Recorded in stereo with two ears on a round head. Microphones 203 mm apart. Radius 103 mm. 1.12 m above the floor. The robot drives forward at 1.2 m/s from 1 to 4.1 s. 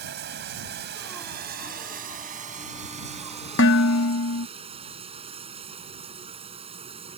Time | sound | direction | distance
0.0 | running water | 50° right (ahead or behind) | ?
3.6 | dishes clattering | 50° left (ahead or behind) | ?